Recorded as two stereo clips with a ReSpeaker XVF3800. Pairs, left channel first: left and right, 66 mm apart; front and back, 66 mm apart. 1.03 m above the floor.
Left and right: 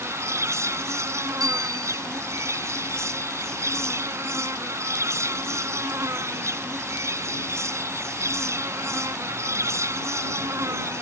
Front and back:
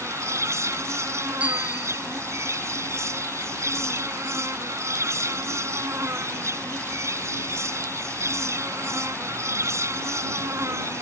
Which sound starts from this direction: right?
A bicycle bell, at 1.4 s.